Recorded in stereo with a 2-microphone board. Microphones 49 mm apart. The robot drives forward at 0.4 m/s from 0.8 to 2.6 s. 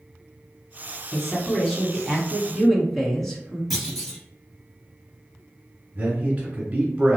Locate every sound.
1.1 s a man speaking: 5° left (ahead or behind), 1.1 m; by 3.6 s centre (ahead or behind), 1.4 m
3.7 s a clunk: centre (ahead or behind), 1.3 m
6.0 s a man speaking: 25° right (ahead or behind), 1.4 m